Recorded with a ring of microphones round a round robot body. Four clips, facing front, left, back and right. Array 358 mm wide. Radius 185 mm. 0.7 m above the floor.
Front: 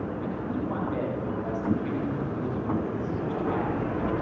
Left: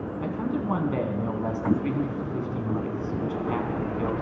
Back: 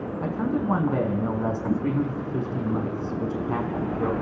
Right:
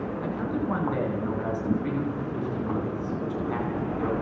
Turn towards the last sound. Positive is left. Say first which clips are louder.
# left 2 dB, back 9 dB
turn(degrees=160)